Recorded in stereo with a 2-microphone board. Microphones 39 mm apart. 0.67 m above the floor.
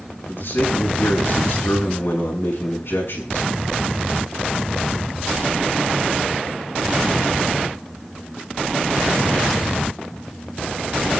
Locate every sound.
0.3 s a man speaking: 75° left (ahead or behind), 6.5 m